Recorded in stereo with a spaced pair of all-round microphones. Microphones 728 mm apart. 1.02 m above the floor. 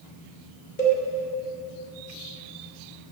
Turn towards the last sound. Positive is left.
turn(degrees=85)